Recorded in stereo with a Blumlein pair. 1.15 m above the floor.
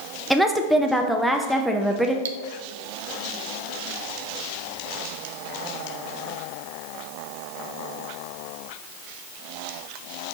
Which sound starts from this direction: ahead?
A woman speaking, at 0.3 s.